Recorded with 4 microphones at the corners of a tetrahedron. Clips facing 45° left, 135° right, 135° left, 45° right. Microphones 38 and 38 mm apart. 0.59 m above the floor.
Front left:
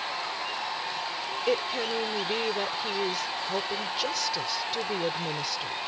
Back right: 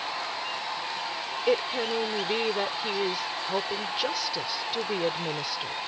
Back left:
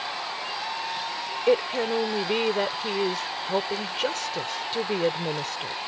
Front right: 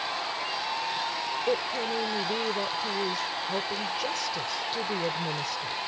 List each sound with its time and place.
1.5 s a woman speaking: 150° left